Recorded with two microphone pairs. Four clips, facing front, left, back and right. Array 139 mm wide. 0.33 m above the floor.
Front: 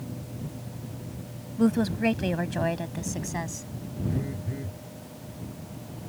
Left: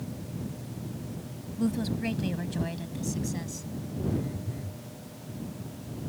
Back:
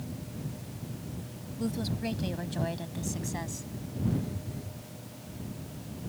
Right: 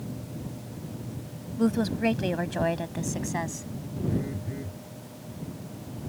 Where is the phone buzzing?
55° right.